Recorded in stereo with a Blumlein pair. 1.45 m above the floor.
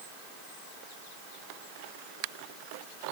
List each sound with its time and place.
Only background noise.